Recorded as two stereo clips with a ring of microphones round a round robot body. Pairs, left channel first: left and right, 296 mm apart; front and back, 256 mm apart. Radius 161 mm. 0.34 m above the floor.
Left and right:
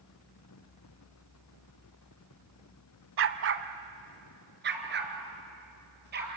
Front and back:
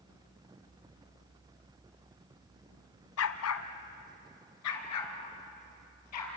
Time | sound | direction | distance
3.2 | a dog barking | 40° right | 0.8 m